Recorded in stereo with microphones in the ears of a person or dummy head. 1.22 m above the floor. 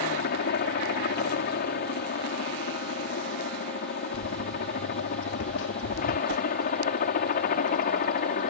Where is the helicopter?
50° left (ahead or behind); by 8.5 s 45° left (ahead or behind).